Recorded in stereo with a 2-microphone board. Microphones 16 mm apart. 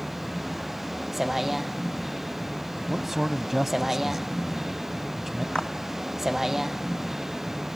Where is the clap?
80° left.